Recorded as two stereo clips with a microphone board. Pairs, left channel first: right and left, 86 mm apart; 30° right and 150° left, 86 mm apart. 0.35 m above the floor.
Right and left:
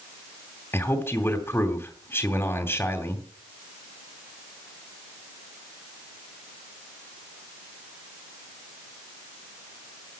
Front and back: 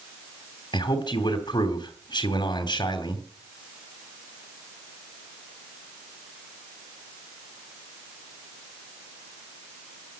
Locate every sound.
0.7 s a man speaking: 30° right, 2.5 m